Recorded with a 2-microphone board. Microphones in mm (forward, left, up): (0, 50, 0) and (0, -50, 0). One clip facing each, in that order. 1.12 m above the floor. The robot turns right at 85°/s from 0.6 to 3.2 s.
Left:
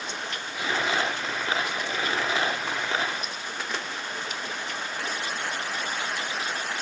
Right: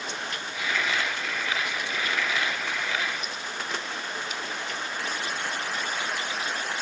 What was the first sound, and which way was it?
Only background noise.